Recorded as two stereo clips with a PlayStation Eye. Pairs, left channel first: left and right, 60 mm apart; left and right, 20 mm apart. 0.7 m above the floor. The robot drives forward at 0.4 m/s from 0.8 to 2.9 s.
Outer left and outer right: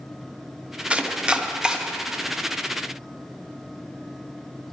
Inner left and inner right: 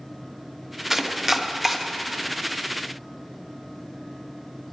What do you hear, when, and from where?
0.9 s chopping: 20° right (ahead or behind), 0.5 m; by 1.8 s 10° right (ahead or behind), 0.9 m